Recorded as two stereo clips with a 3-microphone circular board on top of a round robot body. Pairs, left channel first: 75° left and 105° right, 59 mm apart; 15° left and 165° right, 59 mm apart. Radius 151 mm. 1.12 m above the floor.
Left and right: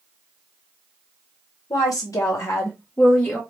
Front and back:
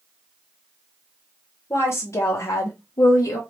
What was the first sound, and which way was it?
A woman speaking, 65° left.